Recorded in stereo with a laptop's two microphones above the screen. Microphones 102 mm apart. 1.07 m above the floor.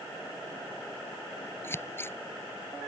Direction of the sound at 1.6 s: 20° left (ahead or behind).